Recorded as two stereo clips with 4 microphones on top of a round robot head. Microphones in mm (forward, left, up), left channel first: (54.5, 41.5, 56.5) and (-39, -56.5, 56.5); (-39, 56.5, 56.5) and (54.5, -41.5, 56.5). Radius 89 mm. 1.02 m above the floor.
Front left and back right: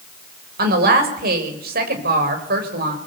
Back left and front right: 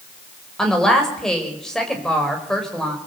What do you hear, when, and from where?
0.6 s a woman speaking: 140° right, 4.5 m